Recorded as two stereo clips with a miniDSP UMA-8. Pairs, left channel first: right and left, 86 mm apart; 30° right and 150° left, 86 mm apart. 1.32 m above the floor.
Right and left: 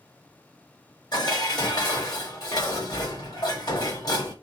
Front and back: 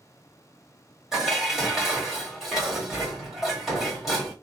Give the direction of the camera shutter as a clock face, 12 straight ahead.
I don't hear a camera shutter.